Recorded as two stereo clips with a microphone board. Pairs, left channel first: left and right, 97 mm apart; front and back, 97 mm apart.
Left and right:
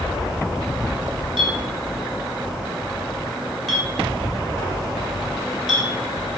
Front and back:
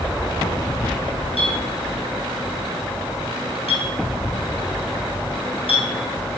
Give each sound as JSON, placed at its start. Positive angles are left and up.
{"t": 1.4, "sound": "a clink", "azimuth_deg": 0, "distance_m": 5.0}